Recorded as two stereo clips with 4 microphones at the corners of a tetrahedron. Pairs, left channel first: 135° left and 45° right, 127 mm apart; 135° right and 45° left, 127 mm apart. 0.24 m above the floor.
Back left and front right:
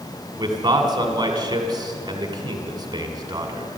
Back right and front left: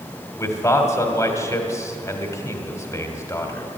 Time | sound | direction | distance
0.4 | a man speaking | 80° right | 1.8 m